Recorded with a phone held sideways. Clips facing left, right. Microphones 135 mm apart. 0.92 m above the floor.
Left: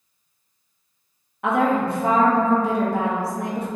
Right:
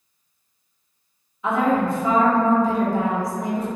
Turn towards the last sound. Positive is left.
turn(degrees=65)  # may be behind; listen again after turning